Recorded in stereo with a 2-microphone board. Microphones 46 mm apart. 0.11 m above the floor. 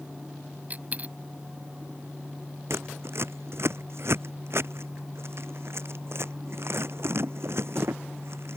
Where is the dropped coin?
30° right (ahead or behind).